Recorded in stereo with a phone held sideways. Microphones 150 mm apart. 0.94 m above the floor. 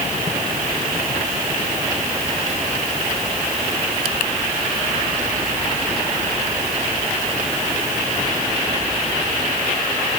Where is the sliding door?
No sliding door in this recording.